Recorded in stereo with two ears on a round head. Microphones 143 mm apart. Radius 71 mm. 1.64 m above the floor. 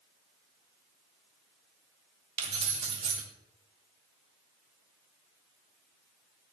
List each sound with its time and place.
2.4 s keys jangling: 40° right (ahead or behind), 2 m